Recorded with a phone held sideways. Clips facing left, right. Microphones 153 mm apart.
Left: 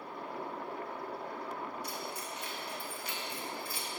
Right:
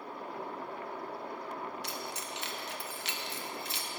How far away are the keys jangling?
About 0.8 m.